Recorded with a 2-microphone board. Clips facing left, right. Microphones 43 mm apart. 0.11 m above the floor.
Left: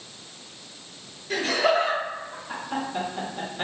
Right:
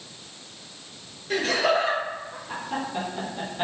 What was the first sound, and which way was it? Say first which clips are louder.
Laughter: even; centre (ahead or behind).